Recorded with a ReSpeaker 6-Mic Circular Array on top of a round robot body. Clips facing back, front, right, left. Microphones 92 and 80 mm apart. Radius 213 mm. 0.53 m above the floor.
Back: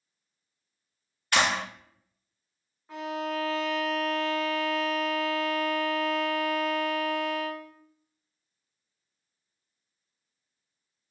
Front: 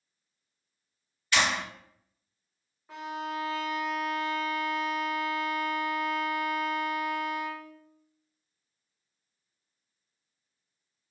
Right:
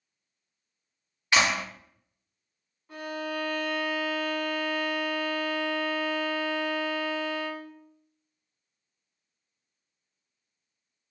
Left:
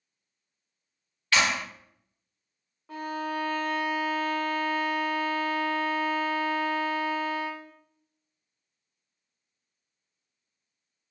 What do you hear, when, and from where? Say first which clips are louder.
1.3 s a clap: back 2 dB, right 1 dB; 160° right, 1.1 m
2.9 s a violin: back 3 dB, left 2 dB; 85° left, 0.9 m